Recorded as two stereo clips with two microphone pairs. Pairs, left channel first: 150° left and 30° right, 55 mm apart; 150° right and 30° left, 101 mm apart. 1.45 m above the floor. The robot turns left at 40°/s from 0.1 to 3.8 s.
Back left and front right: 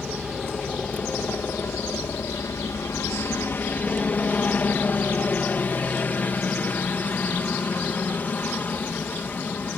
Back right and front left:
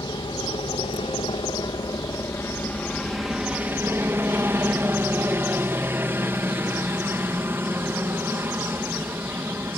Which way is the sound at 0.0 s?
115° right.